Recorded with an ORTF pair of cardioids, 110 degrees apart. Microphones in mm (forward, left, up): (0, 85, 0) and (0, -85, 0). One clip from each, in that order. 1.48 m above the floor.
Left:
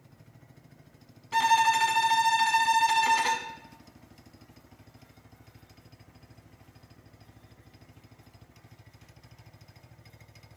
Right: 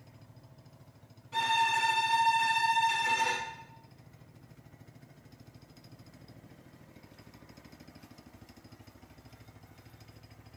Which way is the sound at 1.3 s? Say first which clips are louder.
Left 5 dB; 65° left.